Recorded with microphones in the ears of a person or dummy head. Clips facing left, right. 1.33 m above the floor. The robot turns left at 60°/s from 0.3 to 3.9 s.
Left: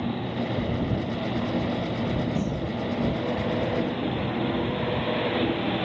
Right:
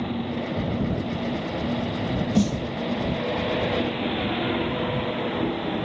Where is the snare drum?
55° right (ahead or behind); by 2.7 s 40° right (ahead or behind).